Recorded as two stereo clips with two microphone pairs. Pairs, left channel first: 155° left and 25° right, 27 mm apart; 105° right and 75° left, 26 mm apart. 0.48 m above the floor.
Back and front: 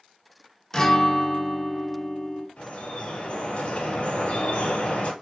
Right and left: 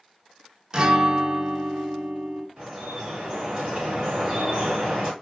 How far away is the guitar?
About 0.6 m.